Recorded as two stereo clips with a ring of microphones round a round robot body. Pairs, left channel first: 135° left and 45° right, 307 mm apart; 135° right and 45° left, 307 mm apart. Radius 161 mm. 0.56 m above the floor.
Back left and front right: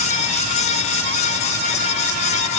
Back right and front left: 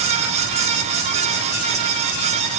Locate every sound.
Only background noise.